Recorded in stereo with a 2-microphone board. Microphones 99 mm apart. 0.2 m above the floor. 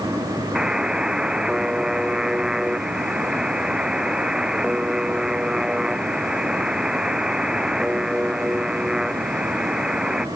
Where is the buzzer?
5° right (ahead or behind).